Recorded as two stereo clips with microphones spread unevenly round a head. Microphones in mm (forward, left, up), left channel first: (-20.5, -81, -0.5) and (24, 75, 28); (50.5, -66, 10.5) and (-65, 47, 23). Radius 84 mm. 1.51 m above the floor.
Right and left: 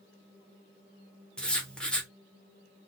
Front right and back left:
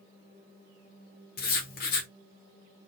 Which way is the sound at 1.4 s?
15° right.